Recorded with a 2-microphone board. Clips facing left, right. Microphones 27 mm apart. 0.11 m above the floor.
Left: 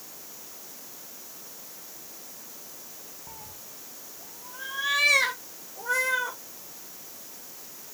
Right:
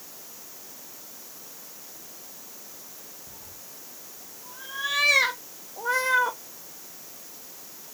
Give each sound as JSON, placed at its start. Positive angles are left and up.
{"t": 3.3, "sound": "a cat meowing", "side_deg": 55, "distance_m": 1.4}